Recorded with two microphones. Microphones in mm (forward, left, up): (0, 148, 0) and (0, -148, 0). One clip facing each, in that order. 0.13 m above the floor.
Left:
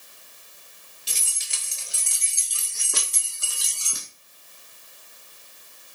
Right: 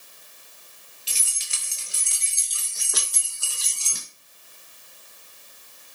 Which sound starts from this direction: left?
Keys jangling, at 1.1 s.